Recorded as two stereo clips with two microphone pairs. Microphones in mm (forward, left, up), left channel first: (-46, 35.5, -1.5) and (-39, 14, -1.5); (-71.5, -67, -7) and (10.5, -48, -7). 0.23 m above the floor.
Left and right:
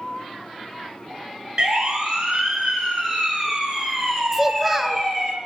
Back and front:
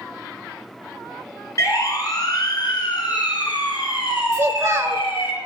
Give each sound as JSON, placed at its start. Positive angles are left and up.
{"t": 1.6, "sound": "a siren", "azimuth_deg": -120, "distance_m": 3.5}
{"t": 4.3, "sound": "a child speaking", "azimuth_deg": 10, "distance_m": 1.2}